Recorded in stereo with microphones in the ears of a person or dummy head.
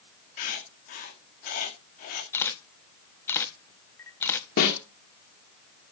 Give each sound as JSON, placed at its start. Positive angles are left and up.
{"t": 0.4, "sound": "writing", "side_deg": 50, "distance_m": 1.9}
{"t": 2.3, "sound": "a camera shutter", "side_deg": 15, "distance_m": 0.8}
{"t": 4.6, "sound": "a snare drum", "side_deg": 55, "distance_m": 1.9}